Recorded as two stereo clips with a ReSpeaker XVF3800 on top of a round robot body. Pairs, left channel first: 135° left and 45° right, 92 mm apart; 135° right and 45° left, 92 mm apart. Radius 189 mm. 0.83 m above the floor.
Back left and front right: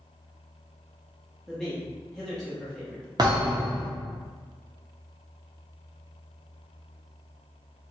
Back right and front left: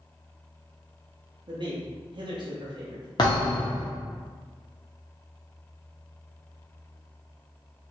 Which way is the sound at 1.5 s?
55° left.